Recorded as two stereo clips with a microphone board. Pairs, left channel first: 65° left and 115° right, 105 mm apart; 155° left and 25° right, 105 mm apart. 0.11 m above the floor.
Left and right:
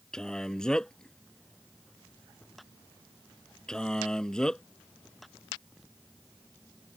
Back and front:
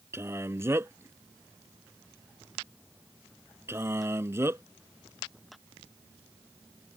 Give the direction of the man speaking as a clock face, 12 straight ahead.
12 o'clock.